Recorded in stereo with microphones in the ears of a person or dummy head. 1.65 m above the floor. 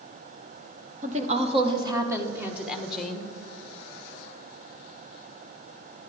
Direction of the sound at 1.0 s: 35° right (ahead or behind).